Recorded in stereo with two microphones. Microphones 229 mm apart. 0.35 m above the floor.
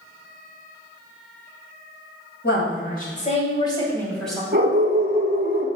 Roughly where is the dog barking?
Right.